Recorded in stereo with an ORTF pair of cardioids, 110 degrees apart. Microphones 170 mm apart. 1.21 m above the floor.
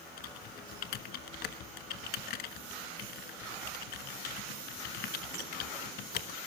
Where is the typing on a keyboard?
70° left, 1.5 m.